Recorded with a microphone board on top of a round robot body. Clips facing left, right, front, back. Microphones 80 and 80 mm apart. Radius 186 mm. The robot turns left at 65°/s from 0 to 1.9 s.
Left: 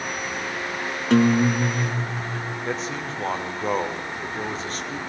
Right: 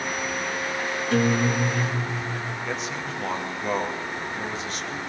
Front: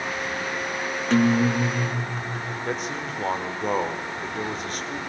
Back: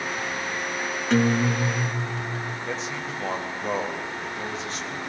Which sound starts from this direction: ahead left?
A man speaking, at 2.6 s.